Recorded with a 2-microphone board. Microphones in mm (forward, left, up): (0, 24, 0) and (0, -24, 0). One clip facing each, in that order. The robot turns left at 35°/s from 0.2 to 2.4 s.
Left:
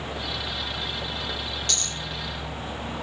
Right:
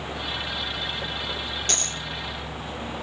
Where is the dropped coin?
50° right (ahead or behind), 0.6 m; by 2.0 s 40° right (ahead or behind), 0.6 m.